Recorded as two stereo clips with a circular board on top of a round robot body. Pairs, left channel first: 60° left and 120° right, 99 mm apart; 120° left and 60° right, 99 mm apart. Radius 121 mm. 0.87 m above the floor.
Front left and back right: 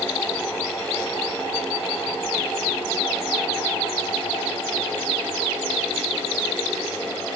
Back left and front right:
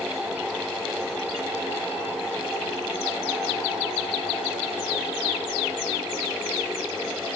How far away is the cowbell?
I don't hear a cowbell.